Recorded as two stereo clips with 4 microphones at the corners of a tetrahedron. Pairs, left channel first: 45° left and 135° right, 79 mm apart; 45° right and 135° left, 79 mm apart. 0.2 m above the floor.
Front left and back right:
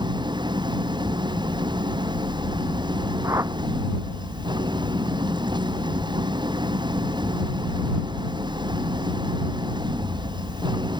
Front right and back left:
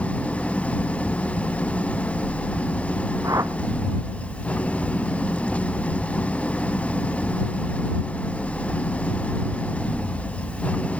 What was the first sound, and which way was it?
An engine running, 120° right.